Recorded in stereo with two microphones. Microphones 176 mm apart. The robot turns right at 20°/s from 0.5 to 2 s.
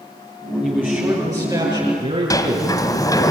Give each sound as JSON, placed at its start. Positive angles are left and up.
{"t": 0.6, "sound": "a man speaking", "side_deg": -5, "distance_m": 6.0}
{"t": 2.3, "sound": "a sliding door", "side_deg": 20, "distance_m": 1.4}